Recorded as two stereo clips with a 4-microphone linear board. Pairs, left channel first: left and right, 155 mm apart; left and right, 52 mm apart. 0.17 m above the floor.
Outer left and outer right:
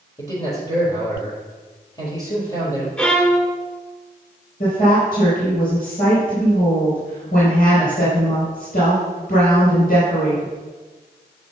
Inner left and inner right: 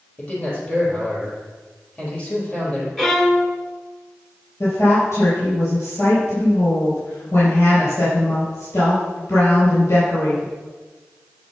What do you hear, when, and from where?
0.2 s a man speaking: 25° left (ahead or behind), 4.5 m
3.0 s a violin: 5° left (ahead or behind), 1.2 m
4.6 s a woman speaking: 70° left (ahead or behind), 4.5 m